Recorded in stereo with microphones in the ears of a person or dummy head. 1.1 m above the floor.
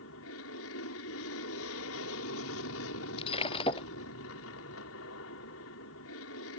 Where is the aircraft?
65° left (ahead or behind).